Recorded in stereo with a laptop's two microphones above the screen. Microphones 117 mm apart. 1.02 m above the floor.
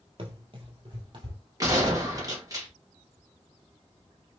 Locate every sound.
0.2 s running footsteps: 45° right (ahead or behind), 1.5 m; by 1.4 s 40° right (ahead or behind), 2 m
1.6 s a gunshot: 30° right (ahead or behind), 1.4 m